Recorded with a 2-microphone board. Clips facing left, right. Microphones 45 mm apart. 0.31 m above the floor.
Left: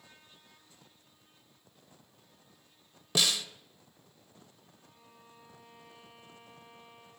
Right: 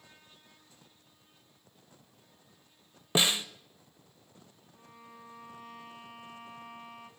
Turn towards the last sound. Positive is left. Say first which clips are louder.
# right 9 dB
turn(degrees=-65)  # may be behind; listen again after turning